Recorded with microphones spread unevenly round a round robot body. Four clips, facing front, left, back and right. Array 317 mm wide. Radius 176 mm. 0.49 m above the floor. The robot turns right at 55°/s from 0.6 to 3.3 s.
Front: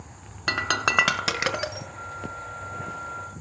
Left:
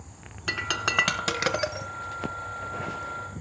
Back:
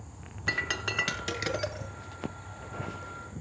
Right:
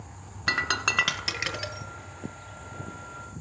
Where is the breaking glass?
10° right, 1.6 m; by 1.9 s 60° left, 1.6 m.